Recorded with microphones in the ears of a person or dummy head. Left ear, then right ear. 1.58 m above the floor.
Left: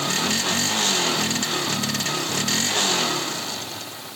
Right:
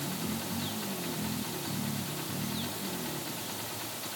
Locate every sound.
Only background noise.